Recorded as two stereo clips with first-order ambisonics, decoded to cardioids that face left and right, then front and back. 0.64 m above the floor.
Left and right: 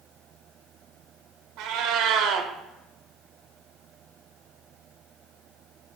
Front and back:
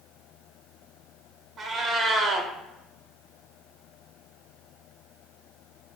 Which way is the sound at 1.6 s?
115° right.